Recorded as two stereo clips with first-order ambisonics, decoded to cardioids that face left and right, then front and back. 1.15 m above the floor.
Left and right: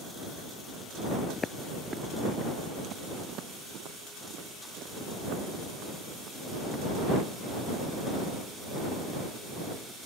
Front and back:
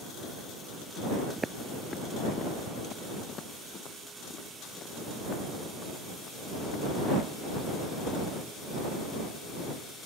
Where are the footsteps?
125° left; by 7.3 s 55° right.